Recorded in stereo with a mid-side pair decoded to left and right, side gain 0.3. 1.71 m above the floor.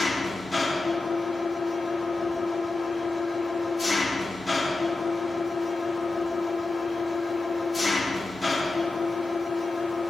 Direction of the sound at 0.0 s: 40° left.